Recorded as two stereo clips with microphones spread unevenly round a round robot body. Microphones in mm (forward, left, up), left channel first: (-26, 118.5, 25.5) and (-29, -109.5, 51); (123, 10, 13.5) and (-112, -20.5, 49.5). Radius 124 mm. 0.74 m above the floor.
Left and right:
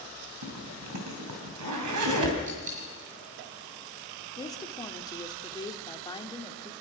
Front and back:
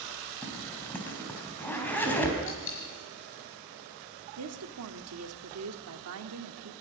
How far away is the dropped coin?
About 5 m.